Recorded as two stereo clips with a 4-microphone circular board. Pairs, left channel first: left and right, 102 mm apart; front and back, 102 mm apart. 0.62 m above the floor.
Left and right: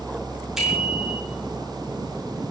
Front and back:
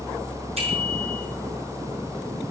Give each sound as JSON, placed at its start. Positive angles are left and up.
{"t": 0.6, "sound": "a bicycle bell", "azimuth_deg": -175, "distance_m": 5.5}